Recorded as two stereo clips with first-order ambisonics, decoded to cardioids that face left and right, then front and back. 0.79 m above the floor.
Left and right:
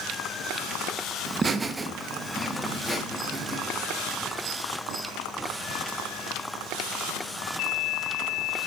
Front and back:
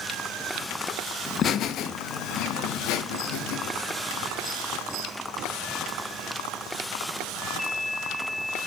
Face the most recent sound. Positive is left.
turn(degrees=10)